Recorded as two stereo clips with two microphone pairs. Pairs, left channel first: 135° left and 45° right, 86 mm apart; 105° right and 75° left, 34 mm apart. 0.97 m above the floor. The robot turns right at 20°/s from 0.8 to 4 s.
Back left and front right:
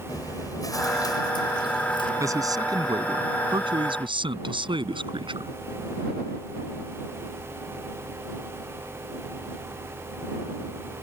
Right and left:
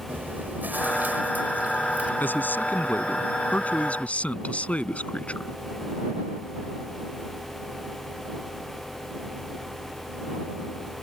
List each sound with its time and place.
0.1 s chewing: 95° left; by 2.1 s 120° left
2.2 s a man speaking: 95° right; by 5.5 s 55° right